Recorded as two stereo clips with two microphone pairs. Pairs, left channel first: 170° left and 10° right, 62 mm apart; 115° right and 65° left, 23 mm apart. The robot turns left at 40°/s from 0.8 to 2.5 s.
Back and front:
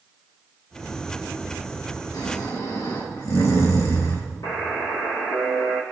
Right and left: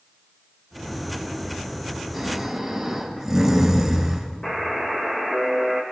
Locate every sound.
2.1 s snoring: 165° left, 5.5 m; by 4.3 s 150° left, 5.5 m
4.4 s a buzzer: 170° right, 5.5 m